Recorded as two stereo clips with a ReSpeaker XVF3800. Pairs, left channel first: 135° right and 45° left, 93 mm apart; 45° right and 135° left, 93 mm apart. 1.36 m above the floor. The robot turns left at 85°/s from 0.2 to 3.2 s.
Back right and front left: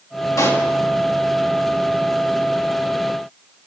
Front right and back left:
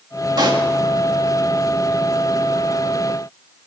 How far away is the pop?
About 1.7 m.